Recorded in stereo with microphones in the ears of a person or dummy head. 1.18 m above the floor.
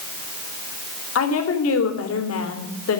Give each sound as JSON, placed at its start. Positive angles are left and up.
{"t": 1.1, "sound": "a woman speaking", "side_deg": 90, "distance_m": 3.0}